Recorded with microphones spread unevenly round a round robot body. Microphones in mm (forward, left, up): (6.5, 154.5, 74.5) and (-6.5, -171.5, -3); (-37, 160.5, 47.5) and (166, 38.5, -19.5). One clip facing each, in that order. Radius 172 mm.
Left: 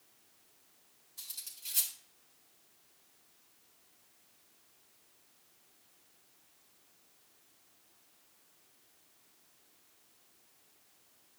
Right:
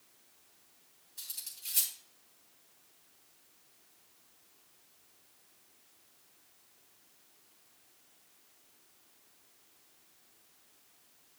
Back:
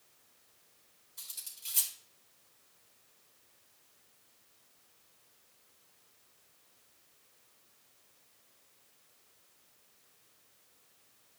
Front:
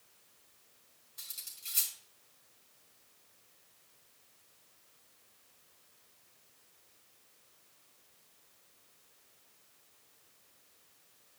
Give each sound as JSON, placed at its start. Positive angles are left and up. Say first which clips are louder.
{"t": 1.2, "sound": "cutlery clinking", "louder": "right 1 dB, even", "azimuth_deg": -175, "distance_m": 3.5}